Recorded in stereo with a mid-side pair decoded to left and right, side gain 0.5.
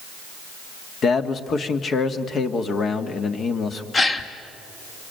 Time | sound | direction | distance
1.0 | a man speaking | 50° left | 1.9 m
3.9 | a gasp | 30° left | 1.7 m